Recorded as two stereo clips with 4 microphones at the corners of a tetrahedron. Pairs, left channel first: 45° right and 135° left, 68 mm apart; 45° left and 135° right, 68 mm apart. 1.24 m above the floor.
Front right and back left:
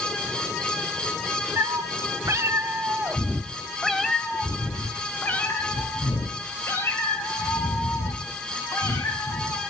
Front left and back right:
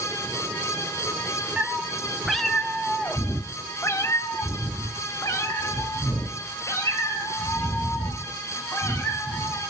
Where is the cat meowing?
150° left, 1.2 m; by 9.6 s 5° left, 4 m.